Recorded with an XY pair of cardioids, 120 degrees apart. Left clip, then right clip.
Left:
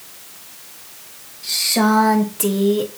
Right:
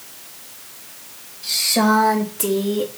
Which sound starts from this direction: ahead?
A woman speaking, at 1.4 s.